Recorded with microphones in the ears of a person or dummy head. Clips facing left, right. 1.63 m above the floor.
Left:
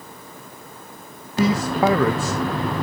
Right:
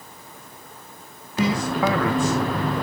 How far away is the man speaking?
About 0.9 m.